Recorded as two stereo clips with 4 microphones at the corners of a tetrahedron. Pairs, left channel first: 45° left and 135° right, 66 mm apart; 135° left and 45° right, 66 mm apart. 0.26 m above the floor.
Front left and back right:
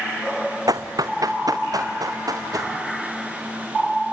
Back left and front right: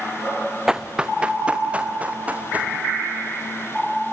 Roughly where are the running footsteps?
Behind right.